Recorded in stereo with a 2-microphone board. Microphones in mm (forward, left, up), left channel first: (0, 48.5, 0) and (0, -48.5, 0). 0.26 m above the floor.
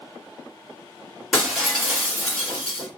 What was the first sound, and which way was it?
Breaking glass, 5° right (ahead or behind).